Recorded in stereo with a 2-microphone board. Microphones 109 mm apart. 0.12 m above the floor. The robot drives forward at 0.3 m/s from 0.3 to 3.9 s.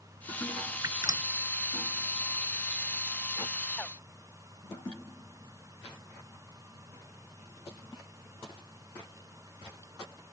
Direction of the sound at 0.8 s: 35° right (ahead or behind).